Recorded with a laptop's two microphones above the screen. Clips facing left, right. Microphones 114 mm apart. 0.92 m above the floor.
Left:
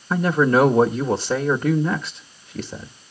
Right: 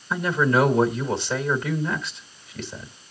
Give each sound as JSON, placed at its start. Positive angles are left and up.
{"t": 0.1, "sound": "a man speaking", "side_deg": 40, "distance_m": 1.3}